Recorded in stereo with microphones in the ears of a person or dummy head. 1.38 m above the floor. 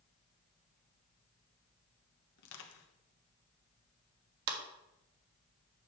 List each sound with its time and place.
2.4 s crushing: 60° left (ahead or behind), 1.3 m
4.5 s a clap: 70° right (ahead or behind), 1.5 m